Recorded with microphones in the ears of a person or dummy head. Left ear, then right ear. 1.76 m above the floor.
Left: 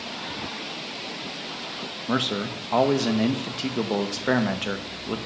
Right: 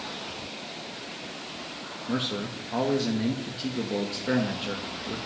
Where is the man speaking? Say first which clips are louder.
Left 5 dB; 30° left (ahead or behind), 0.5 m.